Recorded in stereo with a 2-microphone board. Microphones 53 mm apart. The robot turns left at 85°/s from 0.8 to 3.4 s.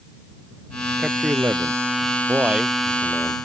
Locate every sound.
1.0 s a man speaking: 10° right; by 1.8 s 80° right
2.3 s a man speaking: 140° right; by 3.4 s 130° left